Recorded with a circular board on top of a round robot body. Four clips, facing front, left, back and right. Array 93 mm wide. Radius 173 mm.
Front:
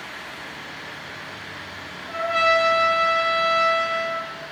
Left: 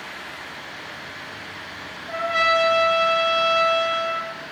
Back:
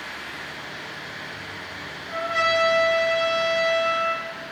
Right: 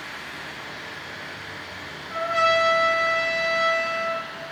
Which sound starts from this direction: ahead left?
A trumpet, at 2.1 s.